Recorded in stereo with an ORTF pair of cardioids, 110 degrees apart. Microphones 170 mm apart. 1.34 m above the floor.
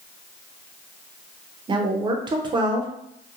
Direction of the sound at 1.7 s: 25° right.